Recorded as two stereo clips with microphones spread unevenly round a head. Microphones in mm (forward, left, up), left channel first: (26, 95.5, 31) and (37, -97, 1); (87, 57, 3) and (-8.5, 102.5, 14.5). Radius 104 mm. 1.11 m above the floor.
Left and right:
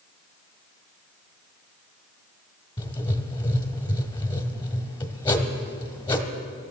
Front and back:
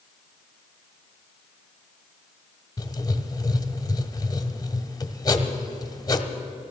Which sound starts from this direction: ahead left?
Writing, at 2.8 s.